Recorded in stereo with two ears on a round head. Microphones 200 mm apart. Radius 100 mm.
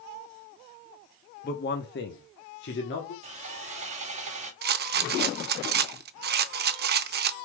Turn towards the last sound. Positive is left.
turn(degrees=-45)  # may be behind; listen again after turning